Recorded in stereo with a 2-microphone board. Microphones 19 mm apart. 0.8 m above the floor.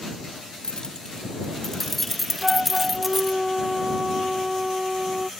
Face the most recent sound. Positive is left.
turn(degrees=-10)  # may be behind; listen again after turning